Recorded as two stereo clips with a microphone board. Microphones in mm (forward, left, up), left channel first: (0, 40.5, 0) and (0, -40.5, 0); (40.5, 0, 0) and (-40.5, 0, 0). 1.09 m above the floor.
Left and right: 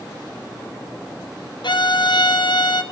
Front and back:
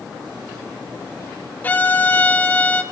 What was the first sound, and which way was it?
A violin, 70° left.